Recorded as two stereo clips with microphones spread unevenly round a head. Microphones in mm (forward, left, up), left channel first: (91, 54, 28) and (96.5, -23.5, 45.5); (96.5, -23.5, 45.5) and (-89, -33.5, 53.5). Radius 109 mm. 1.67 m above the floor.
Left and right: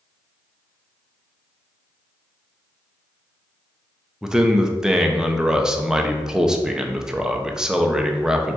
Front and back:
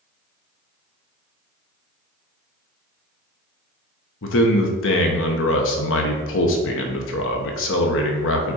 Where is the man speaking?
10° right, 1.0 m.